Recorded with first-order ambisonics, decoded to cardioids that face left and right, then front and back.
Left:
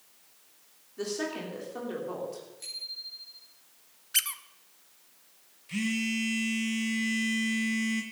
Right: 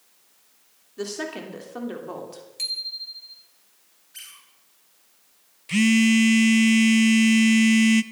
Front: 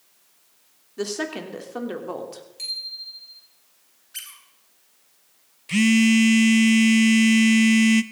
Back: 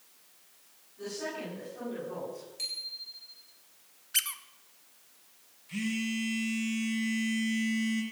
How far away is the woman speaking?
About 3 m.